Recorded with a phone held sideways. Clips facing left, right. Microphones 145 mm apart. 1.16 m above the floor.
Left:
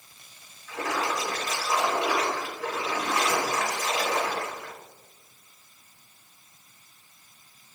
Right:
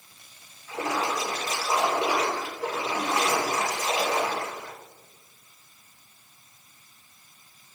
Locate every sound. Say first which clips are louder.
0.7 s a splash: right 1 dB; 30° right (ahead or behind), 1.4 m